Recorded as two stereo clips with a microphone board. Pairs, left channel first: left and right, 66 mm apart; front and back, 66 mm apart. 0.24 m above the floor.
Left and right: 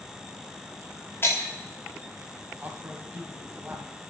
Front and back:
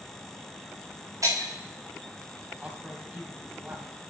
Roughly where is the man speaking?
Behind right.